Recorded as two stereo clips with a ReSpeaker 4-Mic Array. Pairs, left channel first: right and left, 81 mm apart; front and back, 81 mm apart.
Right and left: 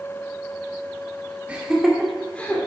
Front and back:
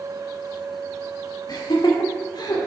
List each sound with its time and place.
1.5 s laughter: 20° left, 1.8 m; by 2.7 s 25° right, 2 m